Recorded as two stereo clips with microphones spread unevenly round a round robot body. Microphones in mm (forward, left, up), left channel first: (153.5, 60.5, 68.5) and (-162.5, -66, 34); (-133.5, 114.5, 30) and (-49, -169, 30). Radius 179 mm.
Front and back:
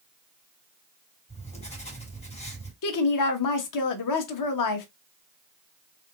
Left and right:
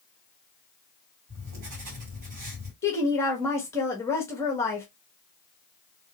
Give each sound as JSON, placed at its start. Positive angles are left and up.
{"t": 1.3, "sound": "writing", "azimuth_deg": -55, "distance_m": 3.0}
{"t": 2.8, "sound": "a woman speaking", "azimuth_deg": 25, "distance_m": 1.1}